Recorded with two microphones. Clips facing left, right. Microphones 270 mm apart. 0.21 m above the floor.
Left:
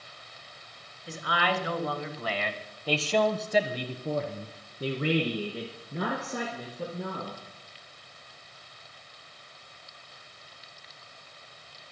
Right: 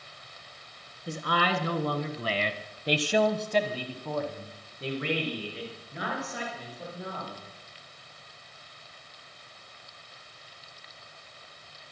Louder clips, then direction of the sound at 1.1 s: Right 2 dB; 50° right (ahead or behind).